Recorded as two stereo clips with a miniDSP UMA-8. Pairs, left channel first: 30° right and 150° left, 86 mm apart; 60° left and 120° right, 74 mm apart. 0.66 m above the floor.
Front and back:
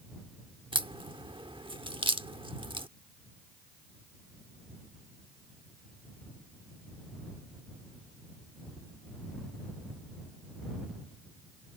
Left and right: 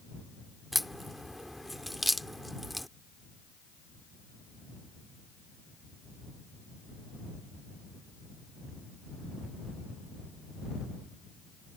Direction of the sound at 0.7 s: 150° left.